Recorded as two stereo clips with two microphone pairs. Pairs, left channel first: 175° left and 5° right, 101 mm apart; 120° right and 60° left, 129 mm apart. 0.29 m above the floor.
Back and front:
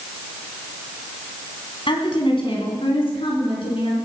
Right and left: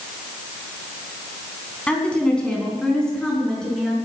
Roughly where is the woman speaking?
Behind.